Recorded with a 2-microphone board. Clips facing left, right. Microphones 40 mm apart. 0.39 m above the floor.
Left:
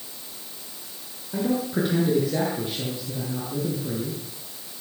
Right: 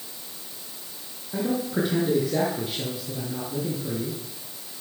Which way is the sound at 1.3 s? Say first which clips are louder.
Left 1 dB; centre (ahead or behind).